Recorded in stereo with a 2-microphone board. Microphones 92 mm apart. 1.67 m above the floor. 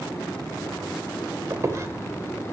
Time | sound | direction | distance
1.5 | a squeak | 35° right (ahead or behind) | 1.8 m